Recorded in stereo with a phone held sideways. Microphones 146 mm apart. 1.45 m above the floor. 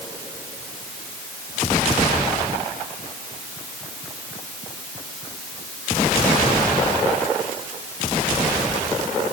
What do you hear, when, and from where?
Only background noise.